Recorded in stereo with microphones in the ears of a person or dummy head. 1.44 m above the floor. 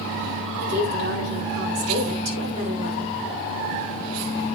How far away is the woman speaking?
About 5 m.